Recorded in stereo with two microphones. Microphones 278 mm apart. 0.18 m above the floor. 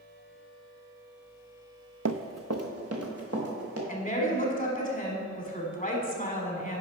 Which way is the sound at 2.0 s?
70° right (ahead or behind).